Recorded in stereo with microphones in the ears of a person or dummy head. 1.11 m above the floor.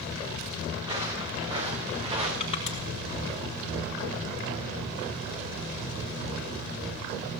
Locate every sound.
0.8 s footsteps: 25° right (ahead or behind), 7.5 m; by 2.3 s 30° right (ahead or behind), 6 m
2.4 s crushing: 40° left (ahead or behind), 4.5 m